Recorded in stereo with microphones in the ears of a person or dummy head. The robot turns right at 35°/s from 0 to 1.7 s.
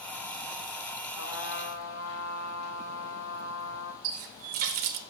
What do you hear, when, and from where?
1.2 s a trumpet: 75° left (ahead or behind), 1.6 m; by 3.9 s 60° left (ahead or behind), 1.6 m
4.0 s a running tap: 50° right (ahead or behind), 0.7 m